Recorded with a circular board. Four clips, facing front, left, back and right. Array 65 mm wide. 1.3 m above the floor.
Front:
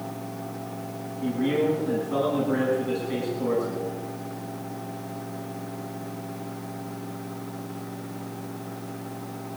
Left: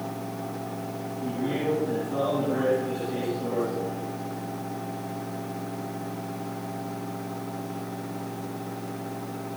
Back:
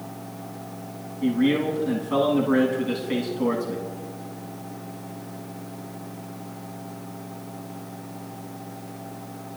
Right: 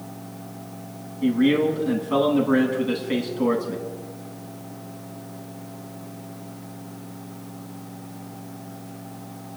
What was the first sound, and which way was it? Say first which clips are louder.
A man speaking: right 9 dB, back 3 dB; 120° right.